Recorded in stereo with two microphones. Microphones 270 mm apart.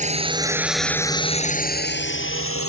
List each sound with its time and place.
0.0 s a drone: 25° right (ahead or behind); by 2.7 s 55° left (ahead or behind)